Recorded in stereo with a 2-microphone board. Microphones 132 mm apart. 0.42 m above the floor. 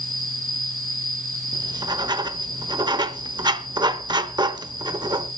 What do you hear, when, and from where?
0.0 s an insect: 80° right, 6.5 m
1.5 s writing: 35° right (ahead or behind), 1.0 m